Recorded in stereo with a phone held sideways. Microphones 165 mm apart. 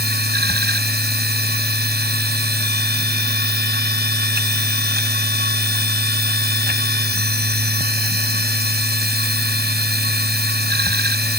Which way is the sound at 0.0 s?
85° right.